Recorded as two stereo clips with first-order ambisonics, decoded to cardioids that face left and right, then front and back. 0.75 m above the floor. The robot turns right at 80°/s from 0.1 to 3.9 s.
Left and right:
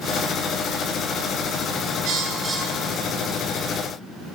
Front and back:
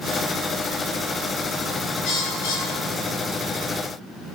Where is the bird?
45° right, 10 m; by 3.4 s 65° left, 10 m.